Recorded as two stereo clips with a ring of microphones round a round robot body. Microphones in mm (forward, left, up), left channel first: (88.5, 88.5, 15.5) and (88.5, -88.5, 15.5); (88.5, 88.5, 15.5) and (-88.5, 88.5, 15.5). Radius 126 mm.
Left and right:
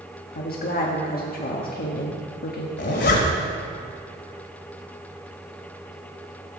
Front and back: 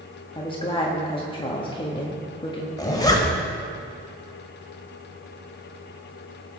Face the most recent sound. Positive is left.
turn(degrees=70)